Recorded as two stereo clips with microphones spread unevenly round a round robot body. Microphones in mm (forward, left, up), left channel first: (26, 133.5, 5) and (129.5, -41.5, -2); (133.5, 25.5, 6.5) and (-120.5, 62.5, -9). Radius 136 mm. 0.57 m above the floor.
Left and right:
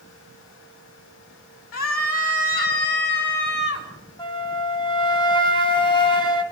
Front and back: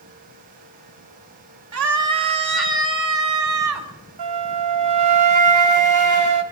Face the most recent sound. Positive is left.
turn(degrees=-160)